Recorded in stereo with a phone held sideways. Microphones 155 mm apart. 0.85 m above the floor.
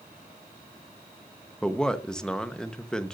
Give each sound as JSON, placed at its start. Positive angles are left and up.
{"t": 1.6, "sound": "a man speaking", "side_deg": 5, "distance_m": 0.9}